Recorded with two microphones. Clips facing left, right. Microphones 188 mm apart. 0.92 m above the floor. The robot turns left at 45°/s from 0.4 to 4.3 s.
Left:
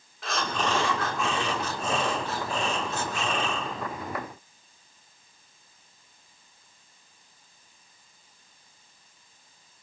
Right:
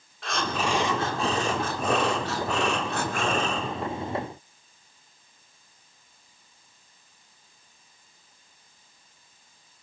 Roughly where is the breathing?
Ahead.